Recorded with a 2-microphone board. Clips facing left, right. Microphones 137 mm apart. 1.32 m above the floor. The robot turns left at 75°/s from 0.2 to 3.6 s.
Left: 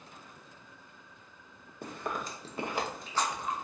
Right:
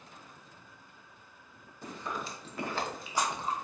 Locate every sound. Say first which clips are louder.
1.8 s chewing: left 2 dB; 65° left (ahead or behind), 0.8 m; by 3.5 s 35° right (ahead or behind), 0.8 m